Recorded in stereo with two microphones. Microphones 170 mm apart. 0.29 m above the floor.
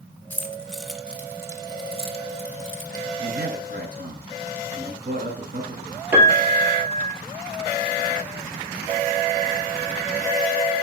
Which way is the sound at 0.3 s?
10° left (ahead or behind).